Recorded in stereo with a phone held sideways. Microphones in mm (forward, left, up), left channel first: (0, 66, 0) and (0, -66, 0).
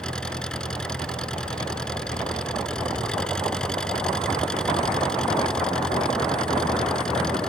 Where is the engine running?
5° left (ahead or behind).